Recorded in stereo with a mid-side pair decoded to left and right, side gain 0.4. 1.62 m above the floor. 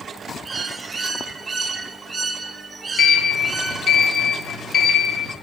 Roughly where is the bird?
Ahead right.